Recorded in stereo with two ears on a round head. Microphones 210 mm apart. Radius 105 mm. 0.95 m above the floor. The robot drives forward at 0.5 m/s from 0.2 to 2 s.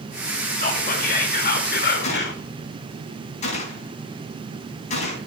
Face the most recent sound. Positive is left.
turn(degrees=30)  # may be behind; listen again after turning